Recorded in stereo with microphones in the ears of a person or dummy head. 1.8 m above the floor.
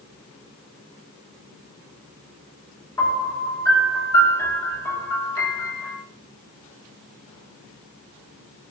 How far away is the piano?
About 9 m.